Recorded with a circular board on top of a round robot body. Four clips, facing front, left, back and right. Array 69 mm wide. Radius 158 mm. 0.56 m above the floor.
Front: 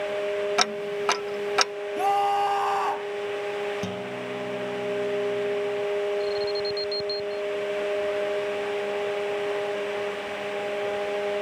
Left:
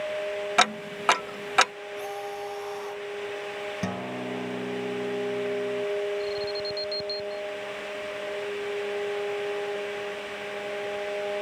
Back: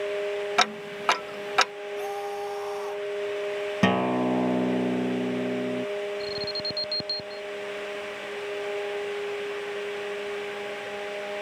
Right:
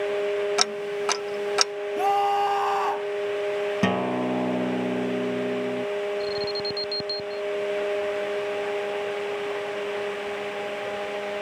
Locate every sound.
0.6 s ticking: 110° left
2.0 s a scream: 50° right
3.8 s a guitar: 150° right
6.2 s an alarm: 140° right